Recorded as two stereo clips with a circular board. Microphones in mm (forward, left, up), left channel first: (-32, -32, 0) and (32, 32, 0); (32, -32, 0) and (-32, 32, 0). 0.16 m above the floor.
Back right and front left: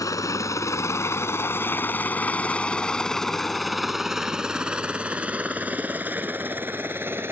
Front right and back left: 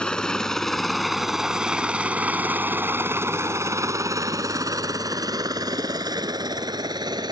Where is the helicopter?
120° right; by 7.3 s 105° left.